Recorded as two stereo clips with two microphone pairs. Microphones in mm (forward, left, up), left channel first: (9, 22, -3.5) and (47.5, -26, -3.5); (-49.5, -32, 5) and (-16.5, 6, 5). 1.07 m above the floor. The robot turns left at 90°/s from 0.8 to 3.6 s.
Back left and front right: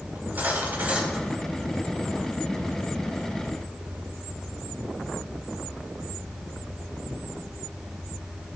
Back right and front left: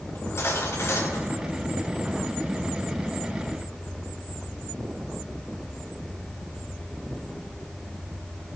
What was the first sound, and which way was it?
Cutlery clinking, 105° right.